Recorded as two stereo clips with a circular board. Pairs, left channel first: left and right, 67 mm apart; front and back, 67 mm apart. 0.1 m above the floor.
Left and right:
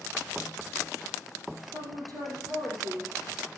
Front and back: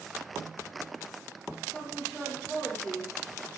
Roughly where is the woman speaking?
Right.